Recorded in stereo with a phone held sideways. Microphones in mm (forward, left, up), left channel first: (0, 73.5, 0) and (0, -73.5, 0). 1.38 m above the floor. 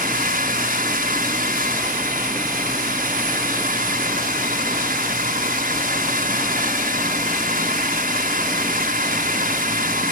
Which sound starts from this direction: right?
A drone, at 0.0 s.